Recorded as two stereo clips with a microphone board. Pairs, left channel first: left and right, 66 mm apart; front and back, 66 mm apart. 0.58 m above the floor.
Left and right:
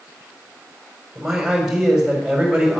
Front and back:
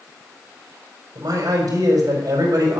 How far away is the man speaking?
About 4 m.